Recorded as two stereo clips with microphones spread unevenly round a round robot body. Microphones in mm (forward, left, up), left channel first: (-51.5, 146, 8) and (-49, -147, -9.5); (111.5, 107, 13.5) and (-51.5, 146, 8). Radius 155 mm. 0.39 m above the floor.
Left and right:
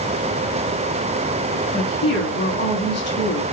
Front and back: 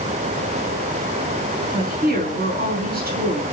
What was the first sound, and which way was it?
A woman speaking, 145° left.